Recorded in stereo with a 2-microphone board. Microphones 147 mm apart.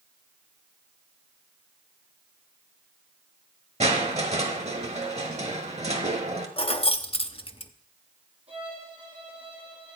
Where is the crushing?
50° right (ahead or behind), 1.3 m.